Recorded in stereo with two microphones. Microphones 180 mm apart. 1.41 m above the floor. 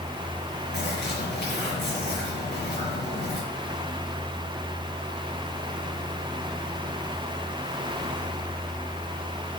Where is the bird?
70° left (ahead or behind), 4 m.